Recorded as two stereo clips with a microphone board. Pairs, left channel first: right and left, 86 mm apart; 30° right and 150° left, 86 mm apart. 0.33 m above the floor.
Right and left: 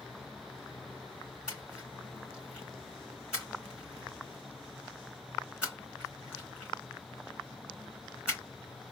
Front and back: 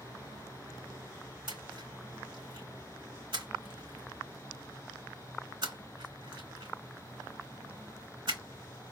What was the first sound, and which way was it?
A splash, 170° left.